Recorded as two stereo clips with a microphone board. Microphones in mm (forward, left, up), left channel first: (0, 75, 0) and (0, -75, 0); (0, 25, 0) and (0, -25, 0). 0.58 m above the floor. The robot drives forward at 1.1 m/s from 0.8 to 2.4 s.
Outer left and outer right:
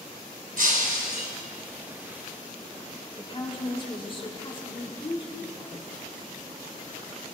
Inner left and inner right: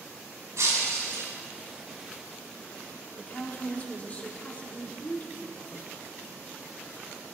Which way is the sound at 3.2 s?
35° left (ahead or behind).